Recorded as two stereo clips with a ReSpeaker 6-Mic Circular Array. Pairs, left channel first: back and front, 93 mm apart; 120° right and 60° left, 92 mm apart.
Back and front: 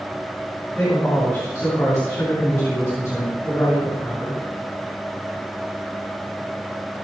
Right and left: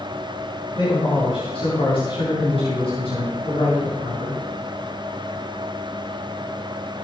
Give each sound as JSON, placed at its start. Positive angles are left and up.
{"t": 0.8, "sound": "a man speaking", "azimuth_deg": -125, "distance_m": 5.0}